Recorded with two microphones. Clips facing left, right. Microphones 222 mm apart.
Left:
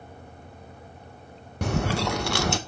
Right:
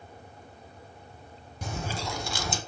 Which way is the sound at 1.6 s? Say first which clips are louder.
Left 9 dB; 70° left (ahead or behind).